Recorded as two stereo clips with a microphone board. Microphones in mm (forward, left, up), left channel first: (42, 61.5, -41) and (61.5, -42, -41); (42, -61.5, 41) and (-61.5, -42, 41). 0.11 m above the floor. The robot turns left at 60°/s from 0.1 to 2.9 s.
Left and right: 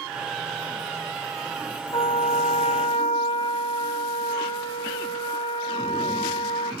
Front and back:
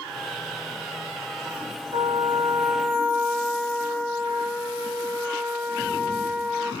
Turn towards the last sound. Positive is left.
turn(degrees=80)